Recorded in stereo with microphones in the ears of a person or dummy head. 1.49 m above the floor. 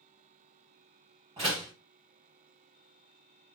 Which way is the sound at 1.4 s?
25° right (ahead or behind).